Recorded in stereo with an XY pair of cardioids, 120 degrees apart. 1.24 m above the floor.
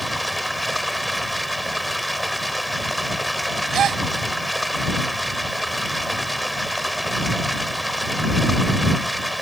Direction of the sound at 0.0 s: Straight ahead.